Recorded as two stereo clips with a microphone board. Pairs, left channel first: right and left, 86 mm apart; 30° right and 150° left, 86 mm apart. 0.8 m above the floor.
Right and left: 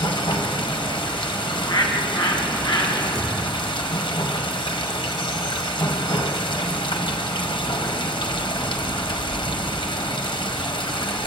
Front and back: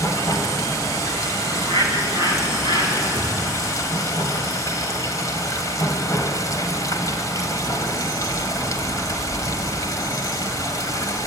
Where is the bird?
65° right, 4.5 m.